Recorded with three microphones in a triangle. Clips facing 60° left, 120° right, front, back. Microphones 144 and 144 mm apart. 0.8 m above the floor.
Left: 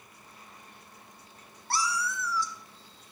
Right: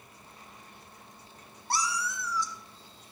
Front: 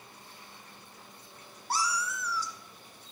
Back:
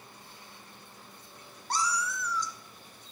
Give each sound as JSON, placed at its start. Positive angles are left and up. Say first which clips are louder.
{"t": 1.7, "sound": "a cat meowing", "louder": "left 1 dB, back 1 dB", "azimuth_deg": -75, "distance_m": 0.6}